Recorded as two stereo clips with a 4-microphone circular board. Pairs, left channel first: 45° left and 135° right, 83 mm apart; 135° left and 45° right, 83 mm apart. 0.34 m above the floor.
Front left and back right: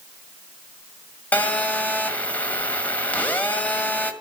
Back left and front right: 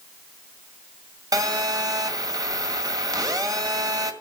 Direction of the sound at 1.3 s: 20° right.